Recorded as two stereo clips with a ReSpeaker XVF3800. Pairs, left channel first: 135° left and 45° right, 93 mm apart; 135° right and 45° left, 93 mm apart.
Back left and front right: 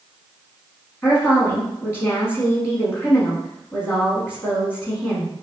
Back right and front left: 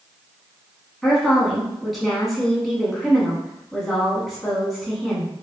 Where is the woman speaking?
140° left, 1.1 m.